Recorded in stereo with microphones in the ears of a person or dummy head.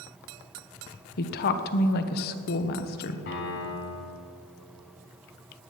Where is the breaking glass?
No breaking glass in this recording.